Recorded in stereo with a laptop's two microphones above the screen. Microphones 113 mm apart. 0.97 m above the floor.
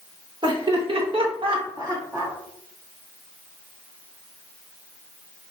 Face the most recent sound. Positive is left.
turn(degrees=-20)  # may be behind; listen again after turning